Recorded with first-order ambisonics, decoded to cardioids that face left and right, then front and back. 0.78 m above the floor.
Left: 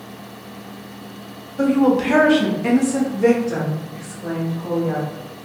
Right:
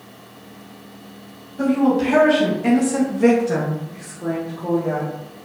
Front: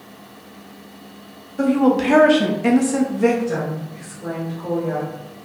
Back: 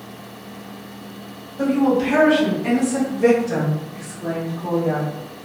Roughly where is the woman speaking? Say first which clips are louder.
Left 2 dB, front 1 dB; ahead left.